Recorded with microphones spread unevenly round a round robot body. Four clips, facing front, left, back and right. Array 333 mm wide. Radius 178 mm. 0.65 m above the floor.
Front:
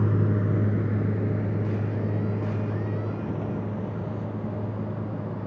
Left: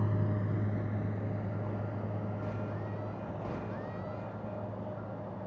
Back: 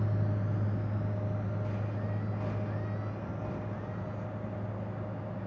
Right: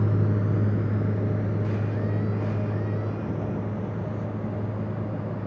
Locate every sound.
0.0 s a vehicle: 25° right; by 5.5 s 35° right